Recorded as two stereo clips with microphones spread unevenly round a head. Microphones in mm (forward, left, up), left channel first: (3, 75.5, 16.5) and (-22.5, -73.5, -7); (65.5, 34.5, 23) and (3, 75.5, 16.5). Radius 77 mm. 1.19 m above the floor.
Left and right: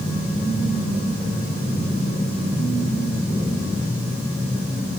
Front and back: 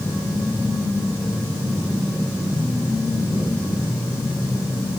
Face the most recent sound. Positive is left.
No sound to turn to.